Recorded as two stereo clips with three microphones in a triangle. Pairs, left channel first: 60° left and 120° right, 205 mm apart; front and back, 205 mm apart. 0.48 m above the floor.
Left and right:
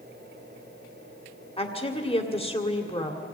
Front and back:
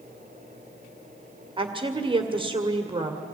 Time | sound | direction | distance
1.6 | a woman speaking | 120° left | 1.9 m